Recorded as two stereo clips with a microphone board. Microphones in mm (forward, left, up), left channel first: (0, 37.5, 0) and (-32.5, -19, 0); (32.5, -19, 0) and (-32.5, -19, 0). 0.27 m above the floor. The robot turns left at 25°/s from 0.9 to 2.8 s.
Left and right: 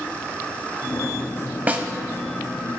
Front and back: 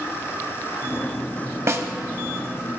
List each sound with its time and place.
1.7 s a snare drum: 175° right, 0.9 m; by 1.9 s straight behind, 0.9 m